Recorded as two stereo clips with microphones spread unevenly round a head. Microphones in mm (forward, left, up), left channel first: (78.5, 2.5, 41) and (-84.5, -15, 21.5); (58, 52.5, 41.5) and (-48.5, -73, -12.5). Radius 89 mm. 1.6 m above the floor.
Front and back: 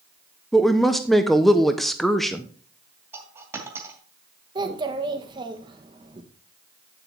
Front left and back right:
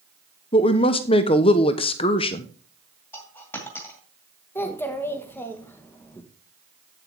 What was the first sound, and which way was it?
A woman speaking, 90° left.